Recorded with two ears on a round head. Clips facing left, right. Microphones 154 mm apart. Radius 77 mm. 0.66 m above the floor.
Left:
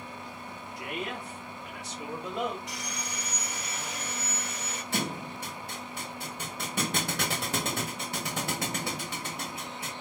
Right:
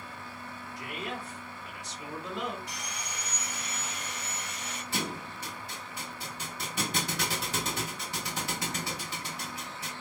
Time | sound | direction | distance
0.8 | a man speaking | 60° left (ahead or behind) | 1.7 m
2.7 | sawing | 55° left (ahead or behind) | 1.7 m
4.9 | a thud | 45° left (ahead or behind) | 1.1 m